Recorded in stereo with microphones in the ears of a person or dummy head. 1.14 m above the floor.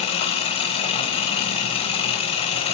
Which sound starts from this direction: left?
An engine running, at 0.0 s.